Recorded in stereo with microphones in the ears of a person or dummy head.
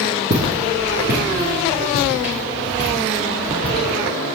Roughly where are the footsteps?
Centre.